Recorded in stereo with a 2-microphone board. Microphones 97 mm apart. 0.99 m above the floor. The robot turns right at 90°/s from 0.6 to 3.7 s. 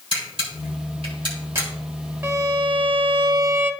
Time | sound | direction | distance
0.1 | a camera shutter | 65° right (ahead or behind) | 3 m
2.2 | a violin | 155° right | 0.7 m